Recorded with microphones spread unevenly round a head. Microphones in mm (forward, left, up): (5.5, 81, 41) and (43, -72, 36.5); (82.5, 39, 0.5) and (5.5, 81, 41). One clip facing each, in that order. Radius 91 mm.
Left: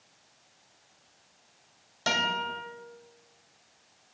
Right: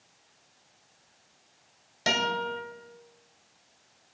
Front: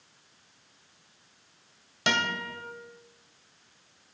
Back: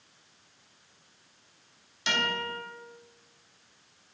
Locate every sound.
2.1 s a guitar: 5° right, 2 m